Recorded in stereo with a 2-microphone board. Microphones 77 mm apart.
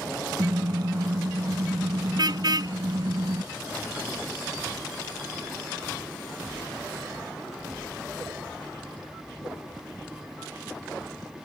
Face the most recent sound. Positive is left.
turn(degrees=-60)  # may be behind; listen again after turning